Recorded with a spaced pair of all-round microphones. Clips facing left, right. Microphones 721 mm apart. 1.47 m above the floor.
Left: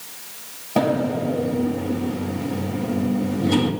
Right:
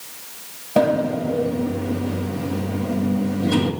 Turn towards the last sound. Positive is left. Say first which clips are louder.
# right 1 dB
turn(degrees=-5)  # may be behind; listen again after turning